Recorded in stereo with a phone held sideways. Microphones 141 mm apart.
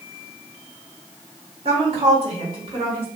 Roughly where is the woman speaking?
Right.